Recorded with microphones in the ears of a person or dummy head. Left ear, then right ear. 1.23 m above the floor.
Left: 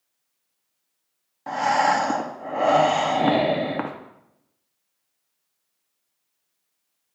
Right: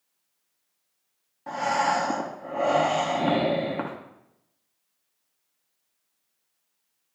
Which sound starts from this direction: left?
Breathing, at 1.5 s.